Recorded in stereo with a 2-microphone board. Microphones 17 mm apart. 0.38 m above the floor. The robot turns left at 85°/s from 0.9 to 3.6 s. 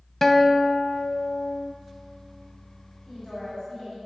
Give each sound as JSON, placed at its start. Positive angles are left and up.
{"t": 0.2, "sound": "a guitar", "azimuth_deg": 160, "distance_m": 0.6}
{"t": 3.1, "sound": "a woman speaking", "azimuth_deg": -160, "distance_m": 2.5}